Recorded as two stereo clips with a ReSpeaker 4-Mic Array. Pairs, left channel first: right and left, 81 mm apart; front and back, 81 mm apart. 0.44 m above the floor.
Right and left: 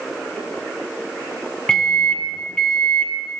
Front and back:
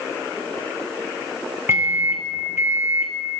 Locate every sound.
1.7 s a microwave: 160° right, 0.8 m